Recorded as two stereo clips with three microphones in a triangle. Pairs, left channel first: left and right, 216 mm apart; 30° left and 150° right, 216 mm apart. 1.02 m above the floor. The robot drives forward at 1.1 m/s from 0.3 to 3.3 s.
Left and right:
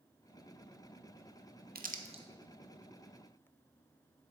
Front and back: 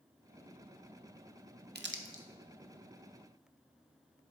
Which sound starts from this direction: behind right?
Crumpling, at 1.8 s.